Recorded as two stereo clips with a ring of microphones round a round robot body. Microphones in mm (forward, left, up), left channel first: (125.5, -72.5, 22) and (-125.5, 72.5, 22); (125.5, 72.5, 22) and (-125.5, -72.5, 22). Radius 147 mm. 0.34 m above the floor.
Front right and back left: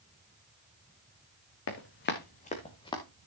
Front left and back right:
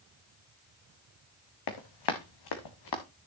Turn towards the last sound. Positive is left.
turn(degrees=50)